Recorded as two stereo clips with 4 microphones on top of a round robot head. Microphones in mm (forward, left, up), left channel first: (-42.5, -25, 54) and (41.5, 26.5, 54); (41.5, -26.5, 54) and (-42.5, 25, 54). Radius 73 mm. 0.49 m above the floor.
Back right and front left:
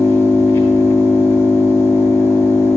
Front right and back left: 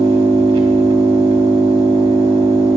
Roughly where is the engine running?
Behind left.